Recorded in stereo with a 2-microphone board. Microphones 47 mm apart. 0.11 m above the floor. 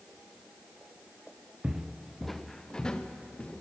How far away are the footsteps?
About 0.8 m.